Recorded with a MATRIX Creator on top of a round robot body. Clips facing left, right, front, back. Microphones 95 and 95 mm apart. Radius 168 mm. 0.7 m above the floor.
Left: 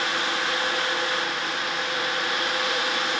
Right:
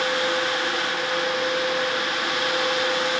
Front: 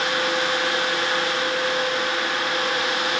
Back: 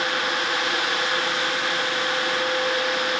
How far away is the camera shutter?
I don't hear a camera shutter.